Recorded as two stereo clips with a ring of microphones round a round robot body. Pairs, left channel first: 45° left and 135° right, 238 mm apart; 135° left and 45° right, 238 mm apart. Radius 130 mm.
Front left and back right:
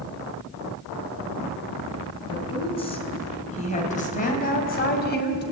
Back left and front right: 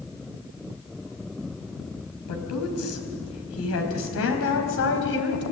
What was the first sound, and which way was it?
A woman speaking, 115° left.